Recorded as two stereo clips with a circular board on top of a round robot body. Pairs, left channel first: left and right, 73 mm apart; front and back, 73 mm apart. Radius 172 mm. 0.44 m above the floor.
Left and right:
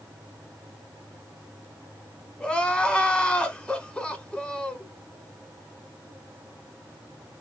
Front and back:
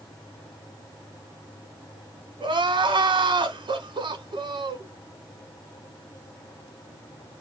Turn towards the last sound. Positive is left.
turn(degrees=170)